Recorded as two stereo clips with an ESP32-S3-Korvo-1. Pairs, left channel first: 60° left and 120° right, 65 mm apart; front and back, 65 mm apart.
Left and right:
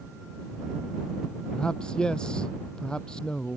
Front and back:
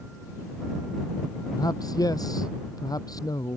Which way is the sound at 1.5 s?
15° right.